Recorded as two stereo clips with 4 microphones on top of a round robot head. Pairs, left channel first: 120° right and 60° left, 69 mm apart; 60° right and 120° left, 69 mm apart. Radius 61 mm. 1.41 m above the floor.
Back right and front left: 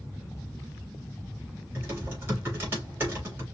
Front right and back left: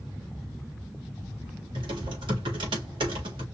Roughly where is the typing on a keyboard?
Behind left.